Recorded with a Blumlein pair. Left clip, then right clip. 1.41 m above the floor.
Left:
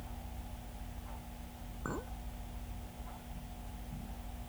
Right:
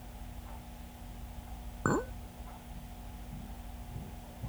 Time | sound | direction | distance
1.9 | a clink | 60° right | ?